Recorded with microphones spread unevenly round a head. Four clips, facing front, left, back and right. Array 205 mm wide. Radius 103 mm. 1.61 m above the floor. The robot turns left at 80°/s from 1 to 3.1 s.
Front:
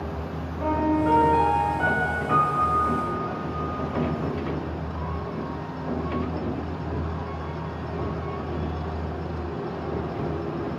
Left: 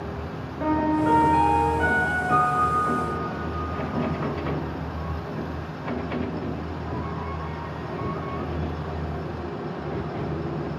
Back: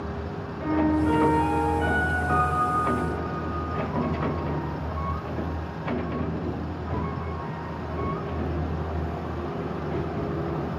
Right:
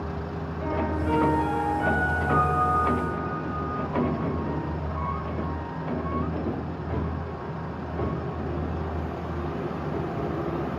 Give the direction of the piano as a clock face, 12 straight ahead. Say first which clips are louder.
Left 7 dB, even; 9 o'clock.